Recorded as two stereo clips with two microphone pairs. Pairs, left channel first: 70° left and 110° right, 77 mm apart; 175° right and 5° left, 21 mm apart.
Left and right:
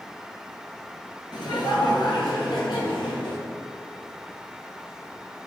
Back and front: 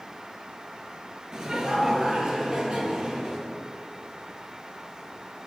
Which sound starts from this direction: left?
Laughter, at 1.3 s.